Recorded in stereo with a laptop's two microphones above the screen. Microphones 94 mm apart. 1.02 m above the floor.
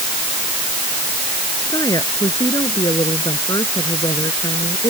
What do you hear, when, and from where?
1.7 s a woman speaking: 40° left (ahead or behind); by 4.9 s 45° left (ahead or behind)